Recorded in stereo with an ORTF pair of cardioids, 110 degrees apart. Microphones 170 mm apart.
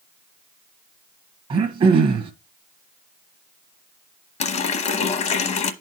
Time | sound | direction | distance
1.5 | throat clearing | 35° right | 1.2 m
4.4 | a running tap | 45° left | 0.9 m